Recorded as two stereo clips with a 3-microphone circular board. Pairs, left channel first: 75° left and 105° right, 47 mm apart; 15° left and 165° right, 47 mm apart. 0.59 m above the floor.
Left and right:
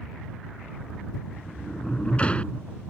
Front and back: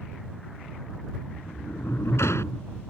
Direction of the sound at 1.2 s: 10° left.